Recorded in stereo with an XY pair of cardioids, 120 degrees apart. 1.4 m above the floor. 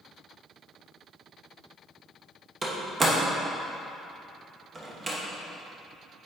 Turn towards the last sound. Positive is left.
turn(degrees=-25)